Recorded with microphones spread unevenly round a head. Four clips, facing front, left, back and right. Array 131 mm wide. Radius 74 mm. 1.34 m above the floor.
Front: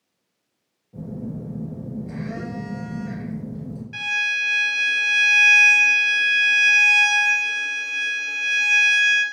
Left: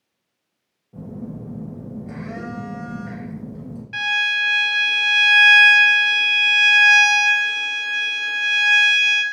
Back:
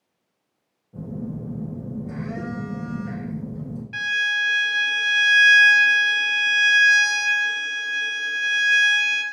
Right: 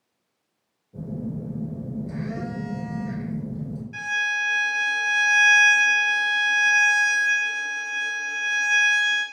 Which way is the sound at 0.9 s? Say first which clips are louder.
Right 1 dB, even; 60° left.